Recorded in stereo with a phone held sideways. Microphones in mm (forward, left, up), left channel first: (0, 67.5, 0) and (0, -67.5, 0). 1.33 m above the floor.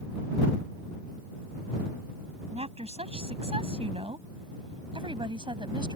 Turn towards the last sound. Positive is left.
turn(degrees=-35)  # may be behind; listen again after turning